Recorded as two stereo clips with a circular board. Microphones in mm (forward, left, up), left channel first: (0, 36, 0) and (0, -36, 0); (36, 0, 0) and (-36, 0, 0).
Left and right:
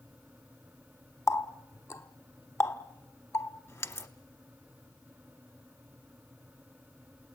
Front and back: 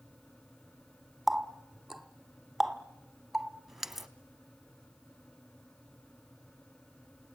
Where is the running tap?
95° left, 0.9 m.